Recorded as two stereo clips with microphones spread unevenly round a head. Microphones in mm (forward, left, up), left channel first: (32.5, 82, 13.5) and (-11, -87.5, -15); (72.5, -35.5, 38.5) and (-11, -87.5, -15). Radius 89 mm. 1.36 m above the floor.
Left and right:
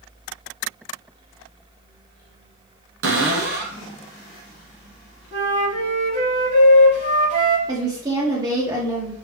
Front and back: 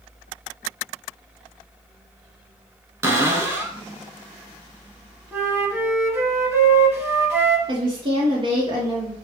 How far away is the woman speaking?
About 0.9 m.